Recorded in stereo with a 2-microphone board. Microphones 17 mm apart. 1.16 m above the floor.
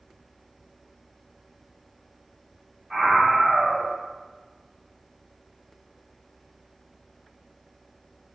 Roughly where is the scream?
Right.